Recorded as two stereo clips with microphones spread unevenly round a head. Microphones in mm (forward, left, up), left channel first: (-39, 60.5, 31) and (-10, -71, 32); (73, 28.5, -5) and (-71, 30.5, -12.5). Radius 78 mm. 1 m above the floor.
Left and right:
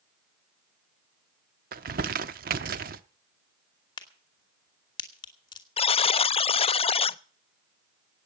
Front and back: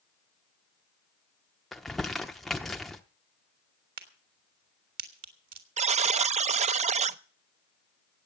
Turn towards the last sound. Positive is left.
turn(degrees=145)